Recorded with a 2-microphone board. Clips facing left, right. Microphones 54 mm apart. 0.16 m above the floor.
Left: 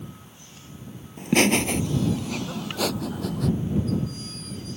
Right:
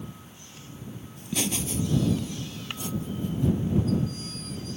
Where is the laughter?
55° left (ahead or behind); by 3.5 s 75° left (ahead or behind).